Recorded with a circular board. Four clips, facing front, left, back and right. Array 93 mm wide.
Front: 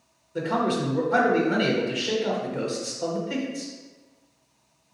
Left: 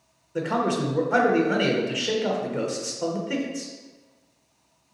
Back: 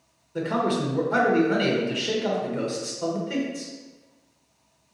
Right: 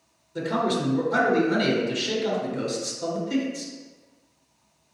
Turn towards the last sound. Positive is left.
turn(degrees=95)